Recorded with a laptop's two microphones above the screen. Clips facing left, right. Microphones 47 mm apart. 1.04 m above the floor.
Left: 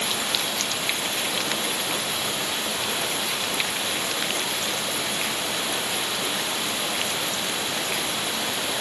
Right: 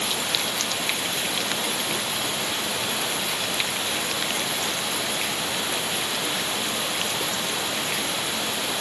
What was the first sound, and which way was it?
Only background noise.